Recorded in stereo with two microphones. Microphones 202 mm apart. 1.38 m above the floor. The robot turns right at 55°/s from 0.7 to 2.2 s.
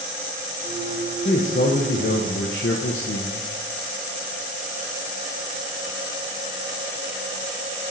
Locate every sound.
1.2 s a man speaking: 30° left, 0.6 m; by 3.5 s 80° left, 0.6 m